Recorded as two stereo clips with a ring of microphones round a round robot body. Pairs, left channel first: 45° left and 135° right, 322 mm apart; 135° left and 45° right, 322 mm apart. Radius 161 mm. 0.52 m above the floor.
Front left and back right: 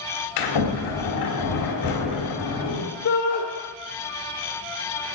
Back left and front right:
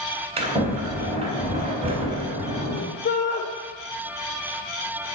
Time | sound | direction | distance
0.4 | a sliding door | 25° left | 3.5 m
3.0 | a shout | 80° left | 1.8 m